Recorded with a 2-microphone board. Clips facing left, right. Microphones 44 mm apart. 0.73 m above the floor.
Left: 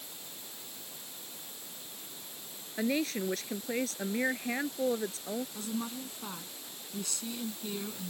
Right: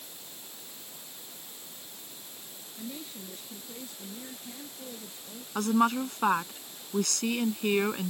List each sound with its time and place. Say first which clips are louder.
2.8 s a woman speaking: left 11 dB; 85° left
5.5 s a woman speaking: right 12 dB; 65° right (ahead or behind)